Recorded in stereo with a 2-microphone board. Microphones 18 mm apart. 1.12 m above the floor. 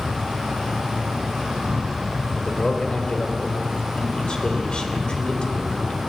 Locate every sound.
0.0 s an insect: 65° right (ahead or behind), 5.5 m
2.4 s a man speaking: 45° left (ahead or behind), 3.5 m